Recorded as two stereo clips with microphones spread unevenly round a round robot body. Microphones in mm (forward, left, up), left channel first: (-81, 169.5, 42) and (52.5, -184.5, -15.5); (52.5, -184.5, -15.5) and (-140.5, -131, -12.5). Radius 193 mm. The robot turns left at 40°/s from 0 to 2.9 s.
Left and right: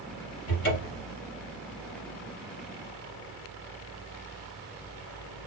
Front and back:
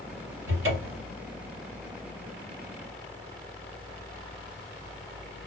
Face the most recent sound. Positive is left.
turn(degrees=80)